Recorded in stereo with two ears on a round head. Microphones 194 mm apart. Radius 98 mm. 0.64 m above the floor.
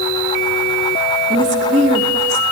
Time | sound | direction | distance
1.3 | a woman speaking | 35° right (ahead or behind) | 1.1 m